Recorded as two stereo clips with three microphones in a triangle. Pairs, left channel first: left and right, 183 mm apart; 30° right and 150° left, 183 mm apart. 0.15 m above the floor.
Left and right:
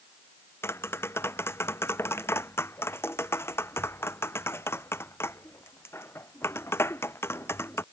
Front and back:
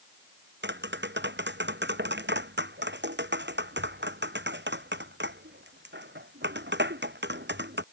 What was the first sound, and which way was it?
Tapping, 165° left.